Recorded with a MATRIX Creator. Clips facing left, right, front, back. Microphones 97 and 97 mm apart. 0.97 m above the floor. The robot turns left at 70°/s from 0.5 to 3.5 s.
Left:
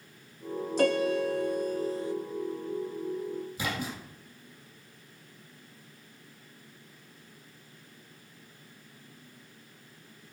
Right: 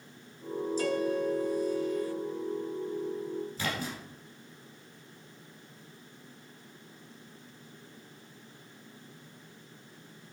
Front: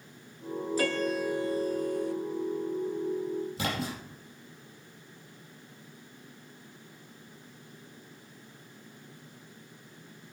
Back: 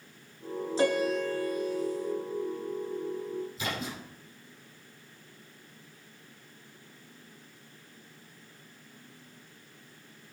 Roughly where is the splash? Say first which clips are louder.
Left 1 dB, front 3 dB; ahead.